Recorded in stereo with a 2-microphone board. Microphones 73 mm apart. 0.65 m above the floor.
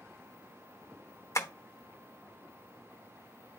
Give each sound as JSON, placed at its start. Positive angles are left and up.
{"t": 1.4, "sound": "tapping", "side_deg": 40, "distance_m": 1.0}